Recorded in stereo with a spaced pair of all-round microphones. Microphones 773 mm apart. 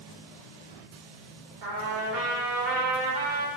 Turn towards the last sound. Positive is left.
turn(degrees=-80)